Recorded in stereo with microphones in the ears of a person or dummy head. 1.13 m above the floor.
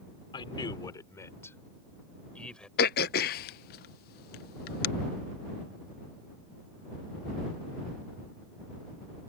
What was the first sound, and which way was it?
A man speaking, 30° left (ahead or behind).